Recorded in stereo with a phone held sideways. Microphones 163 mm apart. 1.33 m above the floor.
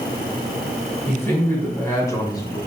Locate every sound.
1.1 s a man speaking: 10° left (ahead or behind), 3.5 m; by 2.6 s 25° left (ahead or behind), 3.5 m